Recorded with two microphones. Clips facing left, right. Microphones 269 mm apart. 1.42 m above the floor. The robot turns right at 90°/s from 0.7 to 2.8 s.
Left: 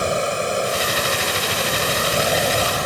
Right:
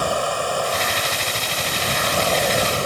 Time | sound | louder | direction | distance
0.0 | running water | left 2 dB | 25° left | ?